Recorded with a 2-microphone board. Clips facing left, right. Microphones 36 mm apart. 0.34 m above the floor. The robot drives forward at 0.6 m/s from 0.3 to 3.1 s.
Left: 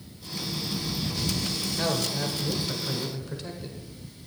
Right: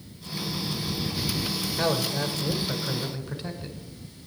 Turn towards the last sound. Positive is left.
turn(degrees=-15)  # may be behind; listen again after turning